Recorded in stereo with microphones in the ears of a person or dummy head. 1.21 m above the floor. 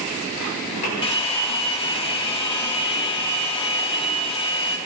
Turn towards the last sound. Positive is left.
turn(degrees=25)  # may be behind; listen again after turning